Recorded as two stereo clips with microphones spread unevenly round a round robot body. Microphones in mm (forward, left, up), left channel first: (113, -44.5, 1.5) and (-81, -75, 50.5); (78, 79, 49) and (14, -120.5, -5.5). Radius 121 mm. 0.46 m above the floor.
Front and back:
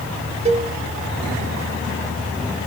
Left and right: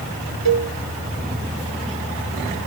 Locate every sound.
0.5 s a cowbell: 120° right, 1.1 m